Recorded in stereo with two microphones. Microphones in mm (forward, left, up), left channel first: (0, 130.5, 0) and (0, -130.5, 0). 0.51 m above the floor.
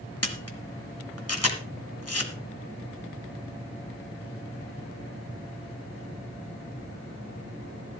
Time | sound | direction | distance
0.2 | a camera shutter | 65° left (ahead or behind) | 1.6 m